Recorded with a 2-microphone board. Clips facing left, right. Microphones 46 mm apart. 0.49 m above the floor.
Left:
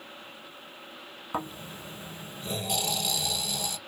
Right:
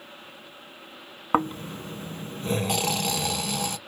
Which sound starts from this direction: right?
Snoring, at 1.3 s.